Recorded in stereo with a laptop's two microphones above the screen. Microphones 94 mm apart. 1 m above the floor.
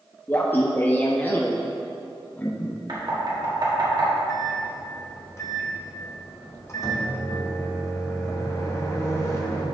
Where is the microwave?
30° left (ahead or behind), 0.8 m.